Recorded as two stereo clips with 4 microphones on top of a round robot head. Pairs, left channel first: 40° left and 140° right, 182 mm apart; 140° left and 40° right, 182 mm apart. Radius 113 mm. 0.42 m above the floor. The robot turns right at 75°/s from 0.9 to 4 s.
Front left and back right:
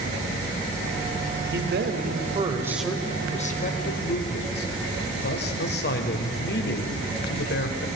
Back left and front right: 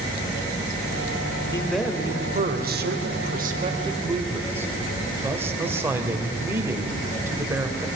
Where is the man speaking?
150° right, 2 m; by 7.9 s 35° left, 2 m.